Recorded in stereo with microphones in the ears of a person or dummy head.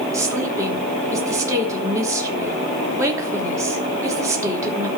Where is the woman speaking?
15° right (ahead or behind), 4.5 m.